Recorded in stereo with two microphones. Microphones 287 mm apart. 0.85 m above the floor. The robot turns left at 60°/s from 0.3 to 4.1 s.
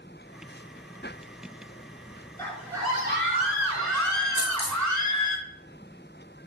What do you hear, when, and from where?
2.4 s a scream: 10° left, 2.0 m; by 5.4 s 90° right, 2.0 m
4.4 s a dropped coin: 70° left (ahead or behind), 1.9 m